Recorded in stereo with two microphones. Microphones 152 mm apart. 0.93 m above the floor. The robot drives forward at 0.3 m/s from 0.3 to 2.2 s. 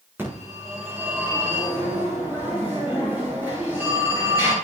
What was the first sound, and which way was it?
A phone ringing, 15° right (ahead or behind).